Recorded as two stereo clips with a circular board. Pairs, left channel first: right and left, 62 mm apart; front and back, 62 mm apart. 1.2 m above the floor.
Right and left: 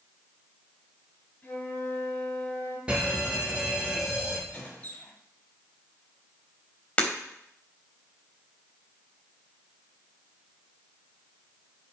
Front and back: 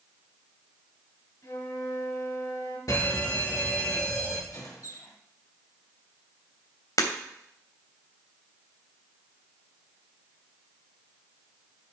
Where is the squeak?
25° right, 5.5 m.